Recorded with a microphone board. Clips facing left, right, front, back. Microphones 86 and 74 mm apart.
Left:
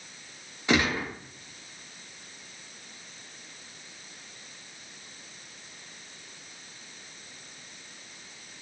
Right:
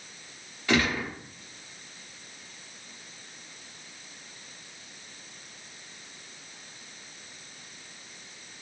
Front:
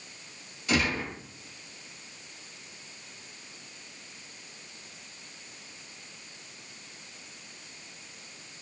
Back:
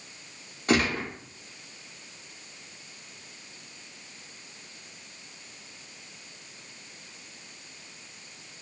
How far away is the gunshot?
About 0.8 m.